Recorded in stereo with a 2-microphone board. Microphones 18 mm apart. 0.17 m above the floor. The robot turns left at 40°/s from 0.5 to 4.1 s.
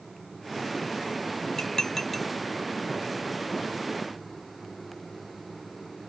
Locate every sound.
1.6 s dishes clattering: 35° left (ahead or behind); by 2.3 s 10° left (ahead or behind)